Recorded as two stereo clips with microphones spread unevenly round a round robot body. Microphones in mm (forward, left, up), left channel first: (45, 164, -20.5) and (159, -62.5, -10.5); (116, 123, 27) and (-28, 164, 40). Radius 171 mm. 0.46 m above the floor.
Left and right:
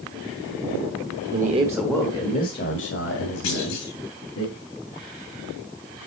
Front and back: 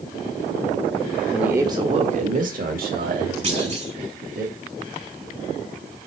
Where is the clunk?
120° left, 4.5 m.